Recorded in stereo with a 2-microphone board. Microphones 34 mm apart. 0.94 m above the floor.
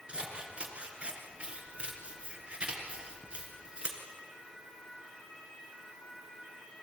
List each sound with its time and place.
0.1 s scissors: 30° right (ahead or behind), 4 m